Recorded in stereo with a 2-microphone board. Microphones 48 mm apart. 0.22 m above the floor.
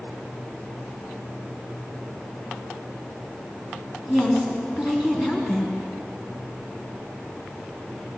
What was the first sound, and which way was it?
A woman speaking, 15° right (ahead or behind).